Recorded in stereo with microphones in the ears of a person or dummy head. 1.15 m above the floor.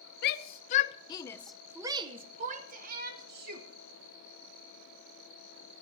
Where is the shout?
60° left (ahead or behind), 0.8 m; by 3.7 s 55° right (ahead or behind), 1.3 m.